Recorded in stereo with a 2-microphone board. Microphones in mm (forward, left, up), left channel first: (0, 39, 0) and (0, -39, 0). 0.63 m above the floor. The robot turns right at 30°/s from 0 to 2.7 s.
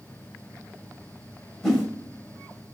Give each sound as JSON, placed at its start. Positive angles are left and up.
{"t": 1.6, "sound": "a whoosh", "side_deg": 5, "distance_m": 0.7}